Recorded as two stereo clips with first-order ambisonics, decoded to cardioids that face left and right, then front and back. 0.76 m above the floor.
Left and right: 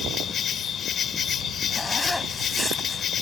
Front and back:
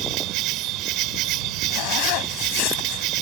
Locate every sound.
0.0 s an insect: 150° left
1.7 s a zipper: 5° left